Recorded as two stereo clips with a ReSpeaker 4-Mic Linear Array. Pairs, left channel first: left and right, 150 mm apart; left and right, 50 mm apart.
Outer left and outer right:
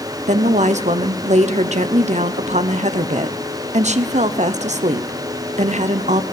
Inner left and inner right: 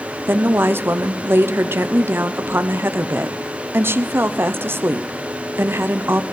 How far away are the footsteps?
No footsteps in this recording.